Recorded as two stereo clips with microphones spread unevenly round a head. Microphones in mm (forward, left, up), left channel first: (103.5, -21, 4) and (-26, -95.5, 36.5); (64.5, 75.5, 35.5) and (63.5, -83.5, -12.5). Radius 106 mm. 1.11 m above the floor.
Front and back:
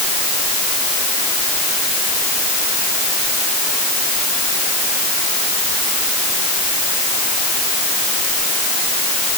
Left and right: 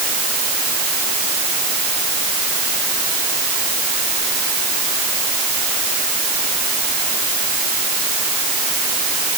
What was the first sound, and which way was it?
Only background noise.